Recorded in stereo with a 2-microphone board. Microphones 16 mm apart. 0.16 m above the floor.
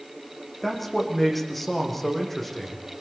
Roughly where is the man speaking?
Centre.